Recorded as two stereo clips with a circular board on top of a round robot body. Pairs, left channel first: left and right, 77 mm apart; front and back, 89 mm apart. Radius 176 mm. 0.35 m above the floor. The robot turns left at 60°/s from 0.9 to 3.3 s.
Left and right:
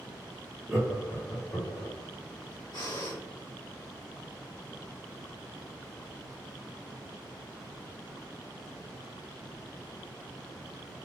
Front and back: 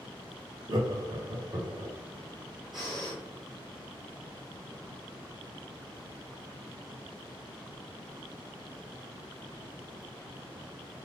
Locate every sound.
0.7 s laughter: 160° right, 1.2 m; by 1.9 s 135° left, 1.2 m
2.7 s breathing: 90° left, 1.9 m; by 3.2 s 65° left, 1.9 m